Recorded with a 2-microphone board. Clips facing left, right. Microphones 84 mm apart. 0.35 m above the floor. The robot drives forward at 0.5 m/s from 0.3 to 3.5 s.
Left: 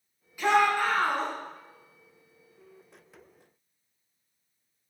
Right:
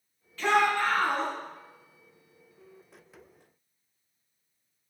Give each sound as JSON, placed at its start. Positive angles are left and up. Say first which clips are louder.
{"t": 0.4, "sound": "a shout", "louder": "left 1 dB", "side_deg": 15, "distance_m": 2.5}